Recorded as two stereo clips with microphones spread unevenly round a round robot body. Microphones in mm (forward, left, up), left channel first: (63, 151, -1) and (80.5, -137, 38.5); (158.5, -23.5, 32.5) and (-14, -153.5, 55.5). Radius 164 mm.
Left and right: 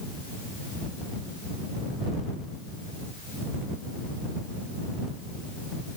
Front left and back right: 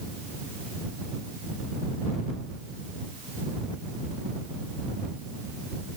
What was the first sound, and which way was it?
Only background noise.